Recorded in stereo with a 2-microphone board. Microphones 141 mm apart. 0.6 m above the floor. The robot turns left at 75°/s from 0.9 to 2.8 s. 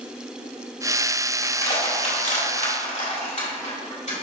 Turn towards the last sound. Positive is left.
turn(degrees=60)  # may be behind; listen again after turning